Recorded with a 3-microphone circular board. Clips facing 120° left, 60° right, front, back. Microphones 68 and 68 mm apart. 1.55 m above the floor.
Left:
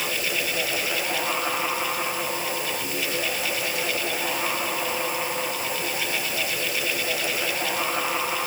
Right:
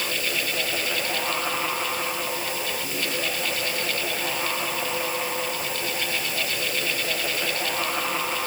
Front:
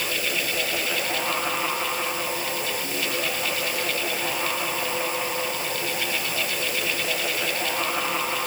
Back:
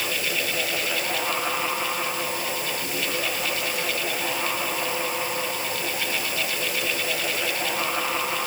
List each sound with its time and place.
Only background noise.